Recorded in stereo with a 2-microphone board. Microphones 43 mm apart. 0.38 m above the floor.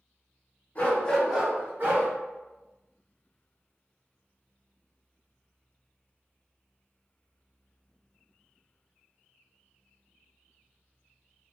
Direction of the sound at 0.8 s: 35° left (ahead or behind).